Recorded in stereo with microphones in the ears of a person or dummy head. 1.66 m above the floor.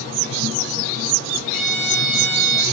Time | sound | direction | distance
1.5 | a violin | 55° right (ahead or behind) | 2.5 m